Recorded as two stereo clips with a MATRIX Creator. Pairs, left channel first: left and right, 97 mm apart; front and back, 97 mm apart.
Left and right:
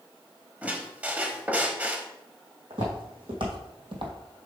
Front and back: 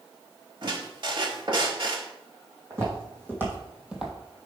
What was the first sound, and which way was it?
A squeak, 160° right.